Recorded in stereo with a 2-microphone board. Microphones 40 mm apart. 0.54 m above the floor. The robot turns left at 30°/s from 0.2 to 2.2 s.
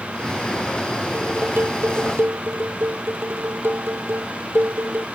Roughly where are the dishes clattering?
Ahead right.